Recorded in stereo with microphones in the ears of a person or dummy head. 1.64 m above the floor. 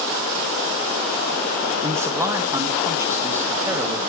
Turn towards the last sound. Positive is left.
turn(degrees=-15)  # may be behind; listen again after turning